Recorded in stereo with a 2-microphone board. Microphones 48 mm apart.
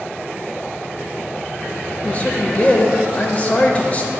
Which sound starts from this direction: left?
A man speaking, at 2.0 s.